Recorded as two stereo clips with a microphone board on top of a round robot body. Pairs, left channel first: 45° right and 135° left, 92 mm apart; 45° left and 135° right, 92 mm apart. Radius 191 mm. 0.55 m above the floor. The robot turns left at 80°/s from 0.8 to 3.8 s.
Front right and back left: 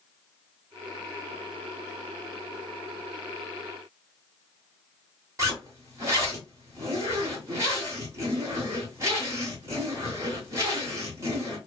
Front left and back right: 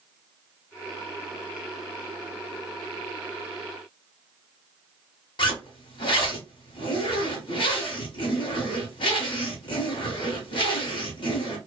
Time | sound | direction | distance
5.4 | a zipper | 80° left | 1.0 m